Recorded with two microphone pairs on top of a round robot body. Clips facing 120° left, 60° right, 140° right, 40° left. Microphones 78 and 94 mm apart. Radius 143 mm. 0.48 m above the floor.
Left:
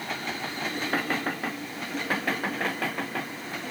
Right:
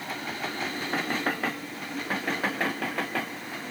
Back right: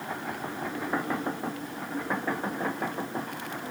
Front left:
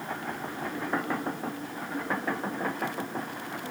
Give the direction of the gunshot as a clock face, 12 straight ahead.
I don't hear a gunshot.